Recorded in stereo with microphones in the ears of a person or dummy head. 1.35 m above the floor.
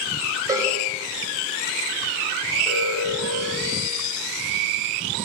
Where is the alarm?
5° right (ahead or behind), 8 m.